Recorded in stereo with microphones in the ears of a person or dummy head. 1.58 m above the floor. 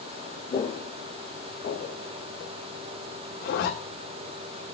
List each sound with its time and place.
0.5 s footsteps: 35° left (ahead or behind), 2.5 m; by 2.5 s 55° left (ahead or behind), 3 m
3.4 s a zipper: 75° left (ahead or behind), 4.5 m